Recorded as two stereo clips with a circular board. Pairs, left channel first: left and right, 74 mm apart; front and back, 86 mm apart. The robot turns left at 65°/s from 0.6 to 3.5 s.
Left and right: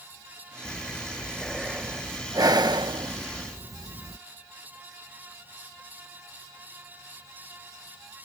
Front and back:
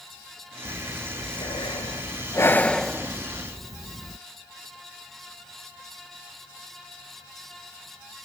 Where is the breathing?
55° left; by 4.2 s 130° right.